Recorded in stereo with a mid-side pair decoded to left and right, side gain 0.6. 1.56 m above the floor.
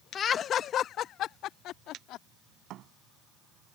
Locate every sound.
0.1 s laughter: 40° left; by 2.2 s 65° left
2.7 s a thud: 60° right